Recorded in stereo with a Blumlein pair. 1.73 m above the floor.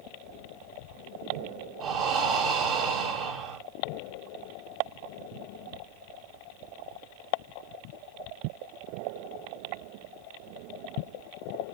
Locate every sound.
1.8 s breathing: 30° right, 1.8 m